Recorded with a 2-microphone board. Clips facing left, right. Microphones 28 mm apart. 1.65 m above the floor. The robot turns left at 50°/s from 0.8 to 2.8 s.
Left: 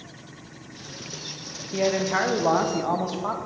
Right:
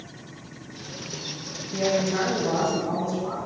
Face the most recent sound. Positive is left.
turn(degrees=95)